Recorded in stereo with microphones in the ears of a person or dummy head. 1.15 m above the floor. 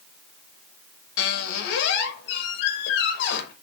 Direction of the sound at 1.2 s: 60° left (ahead or behind).